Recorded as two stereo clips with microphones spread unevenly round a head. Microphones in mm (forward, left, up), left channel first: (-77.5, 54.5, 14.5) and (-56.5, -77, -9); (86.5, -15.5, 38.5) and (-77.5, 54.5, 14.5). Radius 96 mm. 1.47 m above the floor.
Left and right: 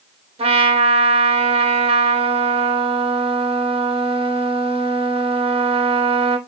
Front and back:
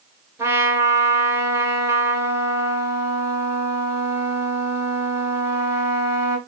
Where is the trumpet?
130° right, 0.9 m.